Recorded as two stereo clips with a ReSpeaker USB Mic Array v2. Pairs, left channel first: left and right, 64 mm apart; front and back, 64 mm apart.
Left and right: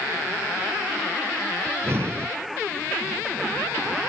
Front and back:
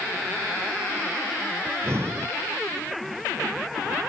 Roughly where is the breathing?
Behind right.